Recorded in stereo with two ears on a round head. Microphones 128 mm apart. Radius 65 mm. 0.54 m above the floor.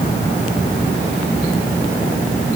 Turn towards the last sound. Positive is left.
No sound to turn to.